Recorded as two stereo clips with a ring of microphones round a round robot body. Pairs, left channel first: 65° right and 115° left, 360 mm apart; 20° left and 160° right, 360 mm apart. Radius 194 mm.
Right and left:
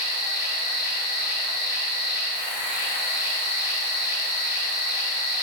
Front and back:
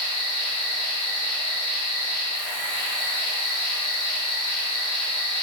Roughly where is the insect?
Right.